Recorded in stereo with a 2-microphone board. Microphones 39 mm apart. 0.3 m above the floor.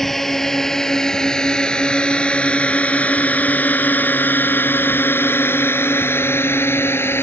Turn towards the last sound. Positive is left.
turn(degrees=75)  # may be behind; listen again after turning